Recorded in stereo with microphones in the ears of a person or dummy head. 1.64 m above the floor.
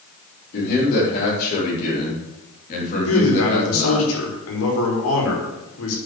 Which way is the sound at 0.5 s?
55° left (ahead or behind).